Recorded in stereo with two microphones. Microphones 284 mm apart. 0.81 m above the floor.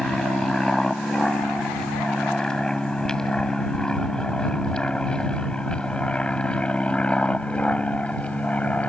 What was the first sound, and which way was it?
An aircraft, centre (ahead or behind).